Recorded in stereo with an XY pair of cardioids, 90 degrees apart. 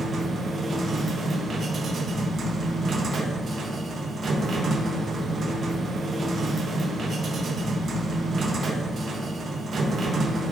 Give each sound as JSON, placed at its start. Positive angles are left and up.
{"t": 0.0, "sound": "a machine running", "azimuth_deg": -55, "distance_m": 1.2}